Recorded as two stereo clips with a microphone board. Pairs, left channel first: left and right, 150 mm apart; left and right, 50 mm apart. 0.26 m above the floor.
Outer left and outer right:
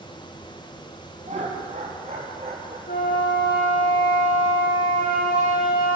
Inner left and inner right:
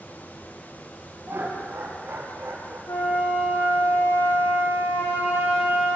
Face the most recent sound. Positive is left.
turn(degrees=85)